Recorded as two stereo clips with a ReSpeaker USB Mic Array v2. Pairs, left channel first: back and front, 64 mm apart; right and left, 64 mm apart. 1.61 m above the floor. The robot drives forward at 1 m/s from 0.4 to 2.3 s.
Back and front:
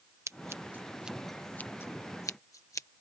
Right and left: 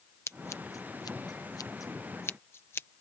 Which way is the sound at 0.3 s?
45° right.